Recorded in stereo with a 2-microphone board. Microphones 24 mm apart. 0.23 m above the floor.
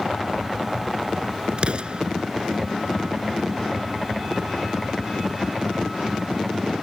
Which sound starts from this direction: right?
An explosion, at 1.6 s.